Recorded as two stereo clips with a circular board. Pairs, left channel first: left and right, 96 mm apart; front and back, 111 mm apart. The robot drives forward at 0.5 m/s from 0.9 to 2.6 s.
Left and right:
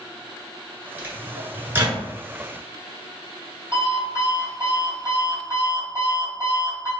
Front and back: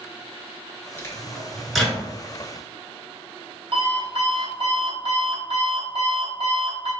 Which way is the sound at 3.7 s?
150° left.